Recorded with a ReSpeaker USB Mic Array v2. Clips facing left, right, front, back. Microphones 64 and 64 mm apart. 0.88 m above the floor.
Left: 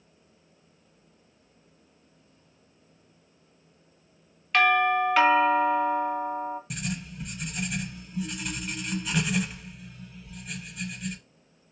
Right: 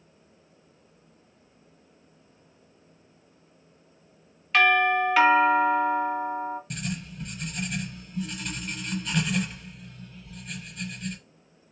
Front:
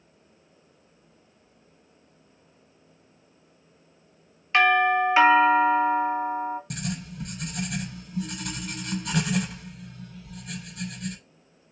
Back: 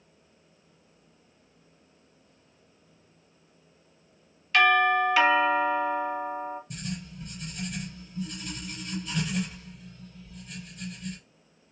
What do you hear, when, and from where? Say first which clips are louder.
4.5 s a doorbell: right 1 dB, front 1 dB; straight ahead, 1.3 m
6.7 s writing: even, front 4 dB; 5° left, 0.6 m